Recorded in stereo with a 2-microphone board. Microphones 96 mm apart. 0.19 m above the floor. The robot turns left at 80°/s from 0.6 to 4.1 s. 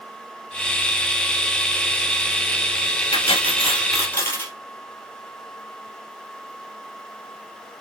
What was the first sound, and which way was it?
Cutlery clinking, 100° left.